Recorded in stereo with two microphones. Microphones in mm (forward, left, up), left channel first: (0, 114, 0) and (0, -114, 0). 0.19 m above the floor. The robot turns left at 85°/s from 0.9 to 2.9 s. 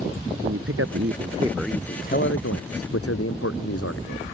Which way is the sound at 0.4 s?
120° right.